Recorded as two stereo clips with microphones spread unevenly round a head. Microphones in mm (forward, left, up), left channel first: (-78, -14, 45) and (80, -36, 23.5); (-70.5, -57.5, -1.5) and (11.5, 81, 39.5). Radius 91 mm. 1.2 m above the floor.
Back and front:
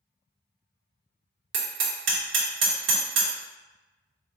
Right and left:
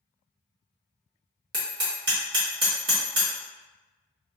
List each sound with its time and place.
1.5 s hammering: straight ahead, 1.4 m